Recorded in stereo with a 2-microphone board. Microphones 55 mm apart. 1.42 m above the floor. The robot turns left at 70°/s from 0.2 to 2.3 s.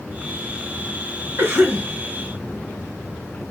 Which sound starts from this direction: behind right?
A cough, at 1.4 s.